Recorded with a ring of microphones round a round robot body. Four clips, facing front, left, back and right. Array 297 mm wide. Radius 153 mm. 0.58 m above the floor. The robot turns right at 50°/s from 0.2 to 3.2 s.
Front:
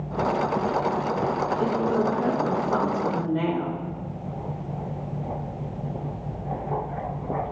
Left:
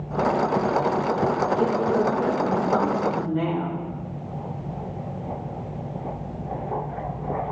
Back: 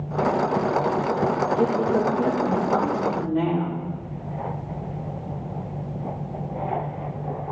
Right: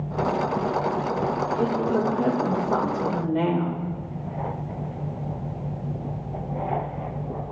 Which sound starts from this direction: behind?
A woman speaking, at 1.6 s.